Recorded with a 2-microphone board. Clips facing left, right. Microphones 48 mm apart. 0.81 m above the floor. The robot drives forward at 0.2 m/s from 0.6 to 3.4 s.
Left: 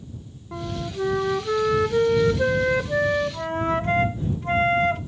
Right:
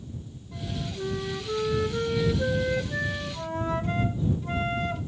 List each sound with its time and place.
0.5 s a flute: 60° left (ahead or behind), 0.6 m; by 5.0 s 45° left (ahead or behind), 0.7 m